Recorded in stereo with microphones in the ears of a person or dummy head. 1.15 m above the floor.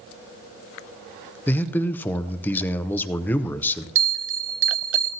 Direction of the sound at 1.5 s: 10° left (ahead or behind).